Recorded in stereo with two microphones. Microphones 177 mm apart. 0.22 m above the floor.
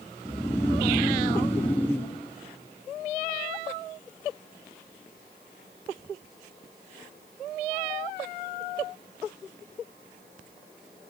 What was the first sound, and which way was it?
Snoring, 10° left (ahead or behind).